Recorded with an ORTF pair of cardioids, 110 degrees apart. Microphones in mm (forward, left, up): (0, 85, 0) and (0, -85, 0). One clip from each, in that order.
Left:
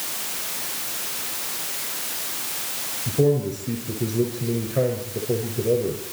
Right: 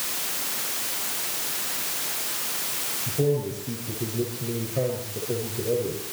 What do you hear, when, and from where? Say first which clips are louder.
3.1 s a man speaking: left 5 dB; 35° left, 6 m